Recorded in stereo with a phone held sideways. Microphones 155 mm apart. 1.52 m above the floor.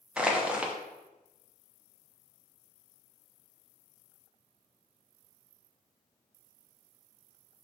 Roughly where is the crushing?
Centre.